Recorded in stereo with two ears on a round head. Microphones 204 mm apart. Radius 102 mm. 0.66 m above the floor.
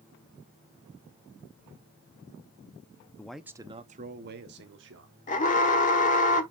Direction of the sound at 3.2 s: 10° left (ahead or behind).